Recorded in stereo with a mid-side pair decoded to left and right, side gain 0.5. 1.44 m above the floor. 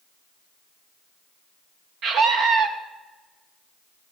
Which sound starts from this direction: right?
A scream, at 2.0 s.